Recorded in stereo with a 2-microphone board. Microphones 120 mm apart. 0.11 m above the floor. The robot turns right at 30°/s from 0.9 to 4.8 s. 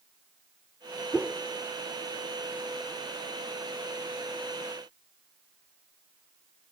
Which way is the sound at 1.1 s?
15° right (ahead or behind).